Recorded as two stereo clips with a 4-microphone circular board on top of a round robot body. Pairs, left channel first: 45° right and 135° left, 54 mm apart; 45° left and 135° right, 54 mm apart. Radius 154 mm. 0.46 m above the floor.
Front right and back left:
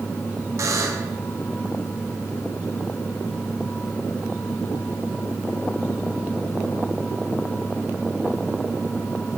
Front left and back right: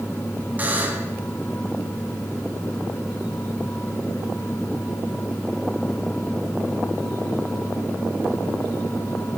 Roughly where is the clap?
No clap in this recording.